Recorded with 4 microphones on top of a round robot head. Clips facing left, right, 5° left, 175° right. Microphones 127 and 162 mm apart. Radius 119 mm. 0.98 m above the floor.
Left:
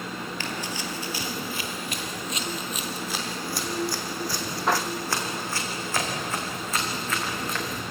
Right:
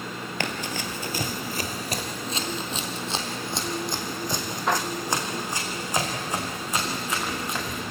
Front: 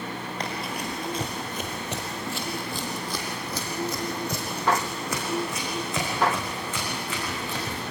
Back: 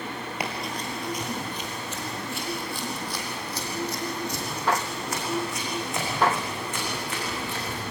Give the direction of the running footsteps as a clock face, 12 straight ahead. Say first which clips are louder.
Right 5 dB, even; 3 o'clock.